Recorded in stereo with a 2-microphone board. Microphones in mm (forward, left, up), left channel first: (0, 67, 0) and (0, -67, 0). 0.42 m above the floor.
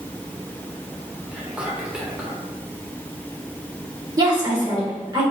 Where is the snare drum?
No snare drum in this recording.